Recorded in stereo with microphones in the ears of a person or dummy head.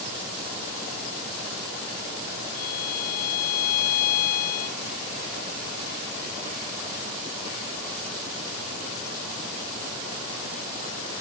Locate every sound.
2.5 s a violin: 55° left (ahead or behind)